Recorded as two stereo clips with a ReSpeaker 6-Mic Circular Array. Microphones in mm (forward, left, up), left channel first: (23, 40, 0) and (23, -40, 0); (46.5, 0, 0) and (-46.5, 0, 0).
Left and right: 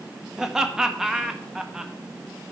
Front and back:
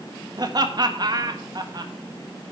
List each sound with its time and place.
0.4 s laughter: 170° right, 1.3 m